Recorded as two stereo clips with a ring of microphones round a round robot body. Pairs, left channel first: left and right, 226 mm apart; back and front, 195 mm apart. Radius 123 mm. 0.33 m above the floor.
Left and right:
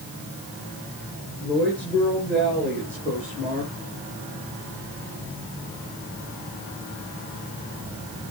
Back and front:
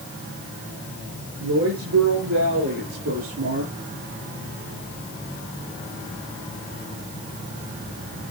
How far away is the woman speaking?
About 6 m.